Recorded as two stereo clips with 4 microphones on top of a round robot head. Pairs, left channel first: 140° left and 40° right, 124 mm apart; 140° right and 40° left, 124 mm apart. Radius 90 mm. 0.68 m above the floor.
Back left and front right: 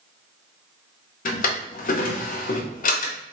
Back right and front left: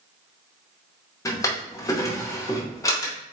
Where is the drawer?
155° left, 0.7 m.